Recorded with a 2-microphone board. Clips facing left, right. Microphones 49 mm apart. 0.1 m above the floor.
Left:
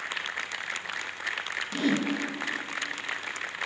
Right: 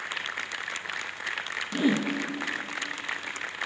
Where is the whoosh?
15° right (ahead or behind), 1.3 m.